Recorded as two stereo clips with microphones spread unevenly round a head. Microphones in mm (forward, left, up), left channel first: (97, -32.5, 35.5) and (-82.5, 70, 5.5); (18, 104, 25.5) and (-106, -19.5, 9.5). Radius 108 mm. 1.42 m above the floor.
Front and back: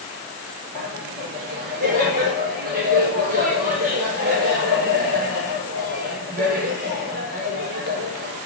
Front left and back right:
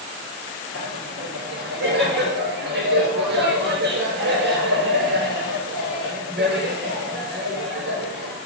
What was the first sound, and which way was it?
Laughter, 160° right.